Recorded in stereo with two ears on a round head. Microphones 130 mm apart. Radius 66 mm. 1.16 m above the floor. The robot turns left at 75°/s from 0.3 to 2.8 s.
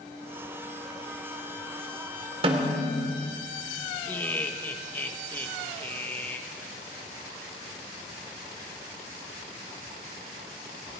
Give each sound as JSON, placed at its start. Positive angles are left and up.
{"t": 2.4, "sound": "a snare drum", "side_deg": -40, "distance_m": 2.0}
{"t": 4.1, "sound": "laughter", "side_deg": 15, "distance_m": 1.4}